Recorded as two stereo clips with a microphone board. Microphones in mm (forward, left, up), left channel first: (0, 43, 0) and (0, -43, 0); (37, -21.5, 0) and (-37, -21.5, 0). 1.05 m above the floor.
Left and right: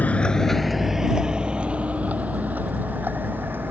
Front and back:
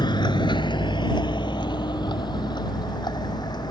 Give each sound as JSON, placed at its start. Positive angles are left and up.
{"t": 0.0, "sound": "a vehicle", "azimuth_deg": 20}